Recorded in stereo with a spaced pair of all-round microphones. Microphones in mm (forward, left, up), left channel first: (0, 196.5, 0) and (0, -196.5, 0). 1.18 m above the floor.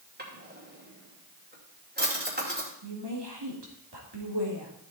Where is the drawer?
25° right (ahead or behind), 2.5 m.